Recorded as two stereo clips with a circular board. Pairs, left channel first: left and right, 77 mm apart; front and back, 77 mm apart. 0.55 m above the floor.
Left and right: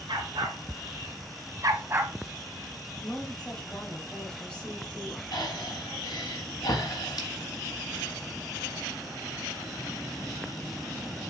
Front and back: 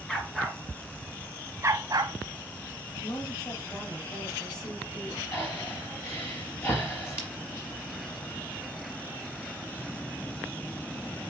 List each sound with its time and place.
0.1 s a dog barking: 85° right, 2 m; by 2.2 s 160° right, 0.9 m
3.0 s a woman speaking: 15° left, 3 m
5.3 s breathing: 55° left, 3.5 m